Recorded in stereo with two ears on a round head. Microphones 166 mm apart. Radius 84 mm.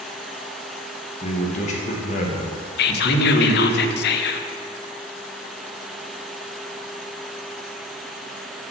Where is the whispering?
60° left (ahead or behind), 0.6 m.